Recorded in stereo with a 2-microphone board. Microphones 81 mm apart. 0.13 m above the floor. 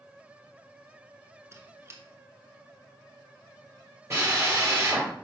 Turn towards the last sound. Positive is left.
turn(degrees=-40)  # may be behind; listen again after turning